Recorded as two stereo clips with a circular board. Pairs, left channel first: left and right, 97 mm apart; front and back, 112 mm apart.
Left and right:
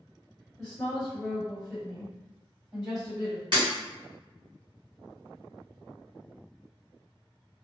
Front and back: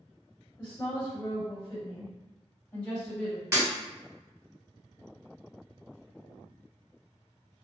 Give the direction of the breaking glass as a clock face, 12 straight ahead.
4 o'clock.